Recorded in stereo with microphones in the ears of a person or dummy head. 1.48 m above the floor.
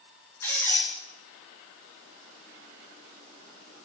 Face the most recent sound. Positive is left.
turn(degrees=20)  # may be behind; listen again after turning